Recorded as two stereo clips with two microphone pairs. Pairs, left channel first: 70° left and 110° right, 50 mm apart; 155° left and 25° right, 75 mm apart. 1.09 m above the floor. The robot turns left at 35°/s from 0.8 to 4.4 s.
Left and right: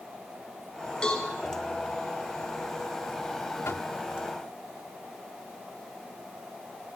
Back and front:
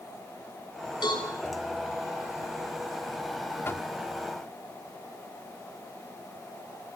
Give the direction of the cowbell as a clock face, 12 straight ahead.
7 o'clock.